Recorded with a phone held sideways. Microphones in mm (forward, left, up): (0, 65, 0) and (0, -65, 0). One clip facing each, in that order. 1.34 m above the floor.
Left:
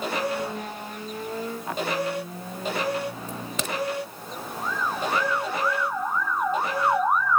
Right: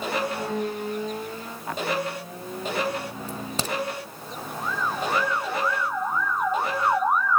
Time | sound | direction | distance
3.3 | a crack | 30° right (ahead or behind) | 1.0 m